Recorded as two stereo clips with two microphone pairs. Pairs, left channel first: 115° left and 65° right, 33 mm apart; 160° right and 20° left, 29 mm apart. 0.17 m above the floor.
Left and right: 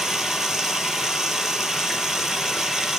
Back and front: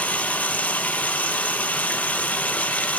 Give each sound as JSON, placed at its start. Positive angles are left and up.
{"t": 0.0, "sound": "running water", "azimuth_deg": -140, "distance_m": 1.5}